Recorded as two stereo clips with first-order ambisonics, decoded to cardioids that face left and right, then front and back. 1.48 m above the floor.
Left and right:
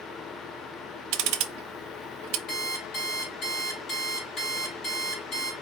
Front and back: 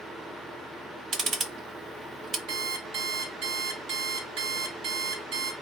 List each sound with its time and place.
1.1 s ticking: 110° right, 0.6 m
2.5 s an alarm clock: 150° left, 2 m